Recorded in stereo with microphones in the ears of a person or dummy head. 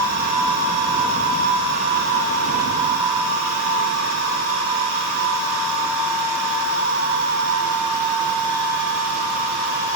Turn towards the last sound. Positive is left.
No sound to turn to.